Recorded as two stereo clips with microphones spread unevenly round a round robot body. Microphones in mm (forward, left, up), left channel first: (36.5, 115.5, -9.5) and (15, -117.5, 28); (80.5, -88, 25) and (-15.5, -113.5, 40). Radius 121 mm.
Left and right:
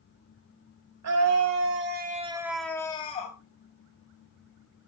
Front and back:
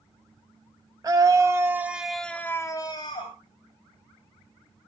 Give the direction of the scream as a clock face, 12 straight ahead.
4 o'clock.